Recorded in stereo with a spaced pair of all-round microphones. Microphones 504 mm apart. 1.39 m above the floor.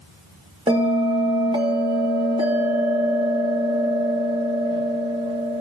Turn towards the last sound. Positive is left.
turn(degrees=-10)  # may be behind; listen again after turning